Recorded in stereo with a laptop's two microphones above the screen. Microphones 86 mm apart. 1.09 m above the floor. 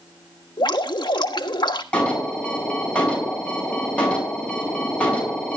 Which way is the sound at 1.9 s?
10° left (ahead or behind).